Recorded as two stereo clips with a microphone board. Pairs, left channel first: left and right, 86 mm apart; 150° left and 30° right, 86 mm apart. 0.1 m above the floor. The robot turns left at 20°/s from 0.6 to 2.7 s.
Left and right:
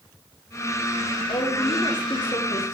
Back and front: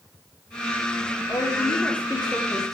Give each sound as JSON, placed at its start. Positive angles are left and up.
{"t": 1.3, "sound": "a woman speaking", "azimuth_deg": 90, "distance_m": 5.0}